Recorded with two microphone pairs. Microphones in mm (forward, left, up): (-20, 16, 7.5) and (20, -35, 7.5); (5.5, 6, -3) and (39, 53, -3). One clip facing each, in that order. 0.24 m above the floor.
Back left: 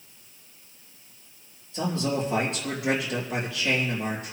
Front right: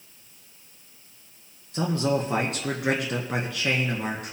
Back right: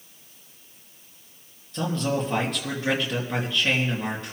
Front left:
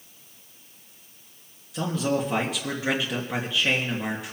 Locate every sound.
1.7 s a man speaking: 25° right, 3.5 m